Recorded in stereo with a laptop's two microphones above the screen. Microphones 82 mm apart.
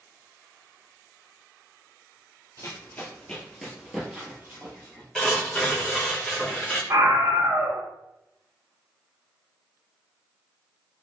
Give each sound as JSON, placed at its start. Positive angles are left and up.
{"t": 2.6, "sound": "running footsteps", "side_deg": 35, "distance_m": 1.1}
{"t": 5.2, "sound": "tearing paper", "side_deg": 5, "distance_m": 1.3}
{"t": 6.9, "sound": "a scream", "side_deg": -40, "distance_m": 0.6}